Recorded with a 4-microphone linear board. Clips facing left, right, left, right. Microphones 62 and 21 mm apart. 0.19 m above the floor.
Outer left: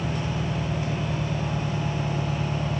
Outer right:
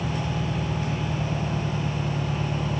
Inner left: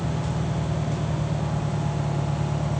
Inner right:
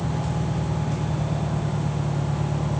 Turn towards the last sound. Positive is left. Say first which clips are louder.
# even, inner right 1 dB
turn(degrees=5)  # may be behind; listen again after turning